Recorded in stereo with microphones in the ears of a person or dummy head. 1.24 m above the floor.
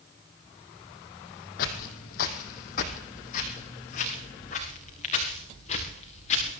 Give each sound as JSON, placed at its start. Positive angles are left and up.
{"t": 1.6, "sound": "footsteps", "side_deg": 55, "distance_m": 2.0}